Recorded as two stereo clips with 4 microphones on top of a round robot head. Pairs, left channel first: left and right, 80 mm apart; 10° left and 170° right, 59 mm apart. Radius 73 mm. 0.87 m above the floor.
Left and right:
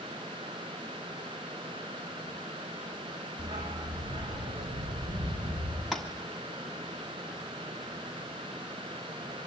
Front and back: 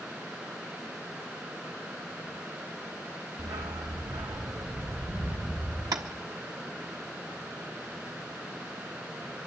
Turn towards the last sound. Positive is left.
turn(degrees=180)